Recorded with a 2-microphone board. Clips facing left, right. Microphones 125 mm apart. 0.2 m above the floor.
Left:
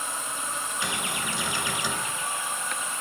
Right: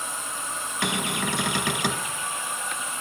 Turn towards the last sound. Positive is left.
turn(degrees=-60)  # may be behind; listen again after turning